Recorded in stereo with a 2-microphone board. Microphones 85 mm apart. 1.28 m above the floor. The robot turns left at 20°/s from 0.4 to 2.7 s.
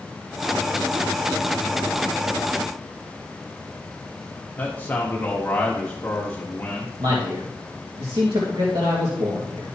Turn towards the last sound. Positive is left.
turn(degrees=-75)  # may be behind; listen again after turning